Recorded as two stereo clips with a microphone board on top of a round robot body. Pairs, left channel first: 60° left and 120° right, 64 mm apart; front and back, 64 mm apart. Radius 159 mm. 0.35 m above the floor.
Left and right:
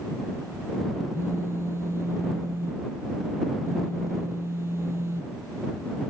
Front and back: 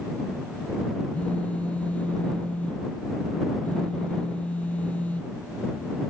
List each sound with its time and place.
1.1 s a phone buzzing: 70° right